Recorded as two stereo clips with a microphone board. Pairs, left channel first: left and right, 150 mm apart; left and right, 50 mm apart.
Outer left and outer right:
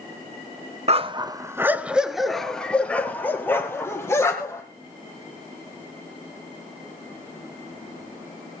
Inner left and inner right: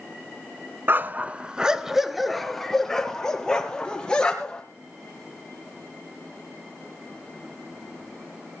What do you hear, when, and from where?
0.9 s a dog barking: 40° right (ahead or behind), 0.6 m; by 4.6 s 20° left (ahead or behind), 2 m